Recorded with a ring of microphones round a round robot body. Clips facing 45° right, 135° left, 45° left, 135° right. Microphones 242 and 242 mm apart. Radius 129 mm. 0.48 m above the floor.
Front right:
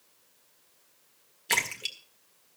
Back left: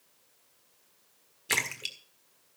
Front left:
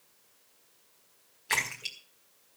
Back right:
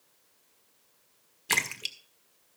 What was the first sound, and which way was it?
A splash, 145° right.